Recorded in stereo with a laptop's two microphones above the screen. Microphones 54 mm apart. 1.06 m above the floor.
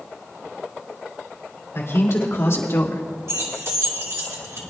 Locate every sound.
1.8 s a man speaking: 55° left (ahead or behind), 3.5 m; by 3.0 s 50° left (ahead or behind), 1.4 m
3.3 s keys jangling: 65° right (ahead or behind), 1.8 m